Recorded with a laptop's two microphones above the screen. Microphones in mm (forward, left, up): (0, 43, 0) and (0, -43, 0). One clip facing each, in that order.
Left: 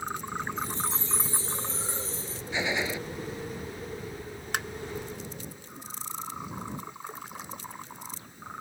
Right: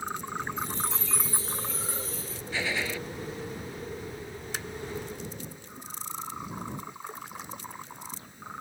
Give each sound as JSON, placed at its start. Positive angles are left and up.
{"t": 0.6, "sound": "a chime", "side_deg": 25}
{"t": 2.5, "sound": "a gunshot", "side_deg": 15}
{"t": 4.5, "sound": "tapping", "side_deg": 60}